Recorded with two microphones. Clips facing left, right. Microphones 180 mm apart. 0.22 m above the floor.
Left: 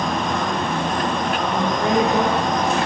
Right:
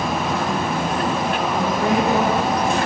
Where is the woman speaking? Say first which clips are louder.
Left 1 dB; 10° left (ahead or behind), 1.8 m; by 2.8 s 35° right (ahead or behind), 1.8 m.